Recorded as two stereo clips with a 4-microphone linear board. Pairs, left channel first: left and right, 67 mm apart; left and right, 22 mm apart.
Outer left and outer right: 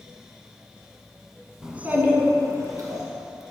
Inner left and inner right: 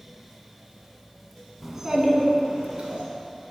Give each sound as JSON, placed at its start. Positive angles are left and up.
{"t": 1.6, "sound": "a child speaking", "side_deg": -10, "distance_m": 1.0}